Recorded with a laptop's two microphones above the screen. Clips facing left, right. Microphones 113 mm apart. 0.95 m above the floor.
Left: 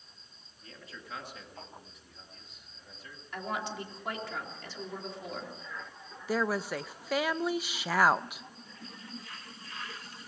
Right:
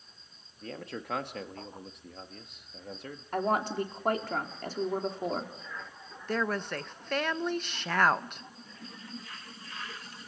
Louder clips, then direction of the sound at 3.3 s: Right 8 dB; 50° right (ahead or behind).